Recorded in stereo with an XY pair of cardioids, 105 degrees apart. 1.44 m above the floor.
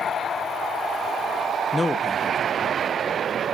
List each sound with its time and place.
1.7 s a man speaking: 20° left, 1.0 m